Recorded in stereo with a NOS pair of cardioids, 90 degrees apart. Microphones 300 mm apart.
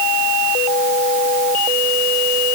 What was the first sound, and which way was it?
Only background noise.